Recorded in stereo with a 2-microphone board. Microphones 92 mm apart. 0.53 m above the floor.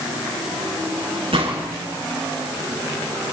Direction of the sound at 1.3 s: 80° right.